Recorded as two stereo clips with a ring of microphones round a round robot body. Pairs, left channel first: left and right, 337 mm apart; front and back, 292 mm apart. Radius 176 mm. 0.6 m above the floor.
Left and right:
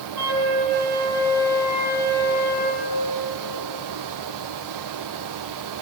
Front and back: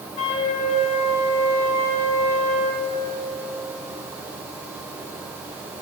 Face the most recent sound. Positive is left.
turn(degrees=-70)